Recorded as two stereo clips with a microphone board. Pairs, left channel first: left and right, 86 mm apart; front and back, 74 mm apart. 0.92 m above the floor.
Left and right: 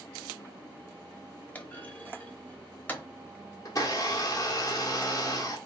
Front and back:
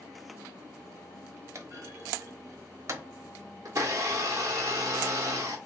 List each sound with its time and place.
1.6 s a clunk: 155° left, 0.9 m
3.6 s a blender: 135° left, 1.3 m